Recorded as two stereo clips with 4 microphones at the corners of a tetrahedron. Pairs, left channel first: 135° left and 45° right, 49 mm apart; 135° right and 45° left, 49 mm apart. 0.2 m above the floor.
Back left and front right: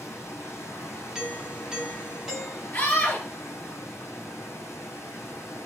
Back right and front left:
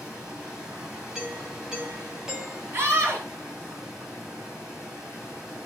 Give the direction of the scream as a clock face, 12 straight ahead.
9 o'clock.